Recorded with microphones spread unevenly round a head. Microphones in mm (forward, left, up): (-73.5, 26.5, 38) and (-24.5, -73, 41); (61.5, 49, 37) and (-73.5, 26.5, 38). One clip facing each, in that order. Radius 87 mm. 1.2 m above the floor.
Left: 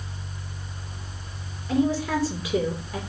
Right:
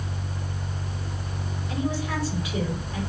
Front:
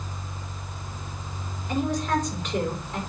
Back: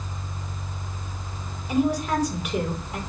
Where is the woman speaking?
110° left, 4 m.